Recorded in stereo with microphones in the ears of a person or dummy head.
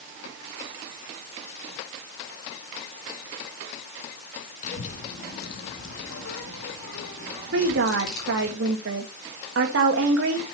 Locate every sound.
4.6 s a child speaking: 45° left (ahead or behind), 2 m; by 8.5 s 55° left (ahead or behind), 3 m
7.5 s a woman speaking: 75° right (ahead or behind), 1.8 m